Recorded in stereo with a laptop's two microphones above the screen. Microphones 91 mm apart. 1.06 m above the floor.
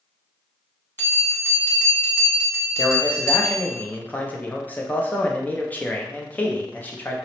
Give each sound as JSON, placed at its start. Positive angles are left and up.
{"t": 1.0, "sound": "a bell", "side_deg": 30, "distance_m": 1.4}
{"t": 2.8, "sound": "a man speaking", "side_deg": 20, "distance_m": 0.5}